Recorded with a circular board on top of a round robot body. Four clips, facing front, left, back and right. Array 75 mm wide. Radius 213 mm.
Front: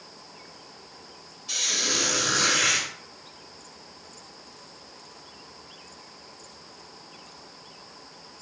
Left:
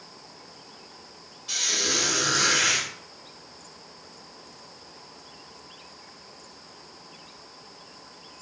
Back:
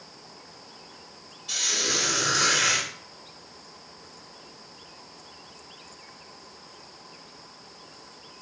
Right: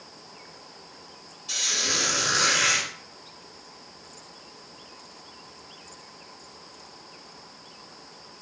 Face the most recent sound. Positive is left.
turn(degrees=110)